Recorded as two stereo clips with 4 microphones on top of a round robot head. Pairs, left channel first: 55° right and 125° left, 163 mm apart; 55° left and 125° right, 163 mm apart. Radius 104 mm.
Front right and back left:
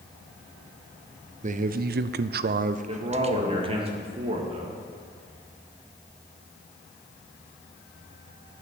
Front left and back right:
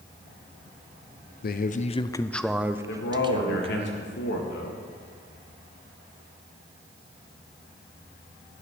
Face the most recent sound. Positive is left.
turn(degrees=65)